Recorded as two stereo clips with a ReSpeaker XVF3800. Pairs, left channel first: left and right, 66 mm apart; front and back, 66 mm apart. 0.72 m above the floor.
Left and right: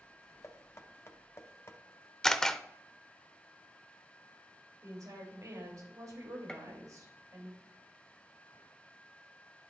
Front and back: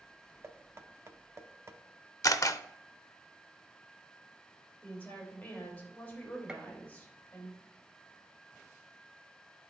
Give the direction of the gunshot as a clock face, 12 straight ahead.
7 o'clock.